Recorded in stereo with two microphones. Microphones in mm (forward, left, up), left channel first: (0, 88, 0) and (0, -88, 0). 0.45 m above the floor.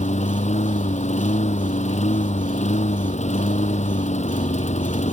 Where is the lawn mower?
40° left (ahead or behind).